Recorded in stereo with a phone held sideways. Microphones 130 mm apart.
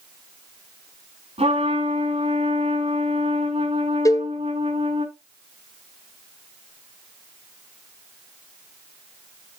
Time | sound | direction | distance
1.4 | a trumpet | 50° right (ahead or behind) | 5 m
4.0 | a cowbell | 25° left (ahead or behind) | 0.5 m